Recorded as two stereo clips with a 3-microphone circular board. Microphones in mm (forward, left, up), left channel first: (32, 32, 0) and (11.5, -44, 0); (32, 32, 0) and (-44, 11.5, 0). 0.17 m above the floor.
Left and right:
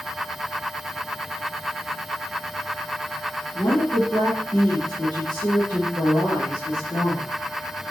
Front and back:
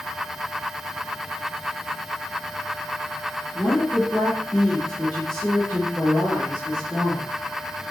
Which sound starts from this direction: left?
A woman speaking, at 3.5 s.